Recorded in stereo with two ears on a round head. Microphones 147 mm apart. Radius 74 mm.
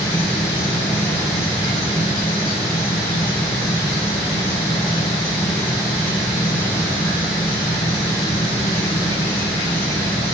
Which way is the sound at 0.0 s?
20° left (ahead or behind).